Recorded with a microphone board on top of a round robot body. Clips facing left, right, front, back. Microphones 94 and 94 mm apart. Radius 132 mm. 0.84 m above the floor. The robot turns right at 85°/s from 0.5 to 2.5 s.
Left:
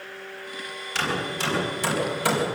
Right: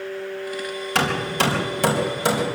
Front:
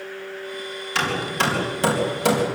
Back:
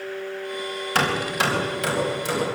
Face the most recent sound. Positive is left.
turn(degrees=-5)